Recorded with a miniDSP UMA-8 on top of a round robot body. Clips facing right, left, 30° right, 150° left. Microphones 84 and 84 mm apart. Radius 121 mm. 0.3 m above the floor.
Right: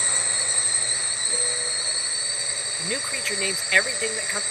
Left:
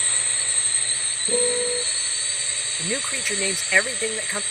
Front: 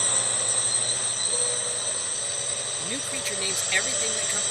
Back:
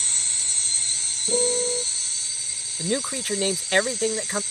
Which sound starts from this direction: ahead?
A drone, at 0.0 s.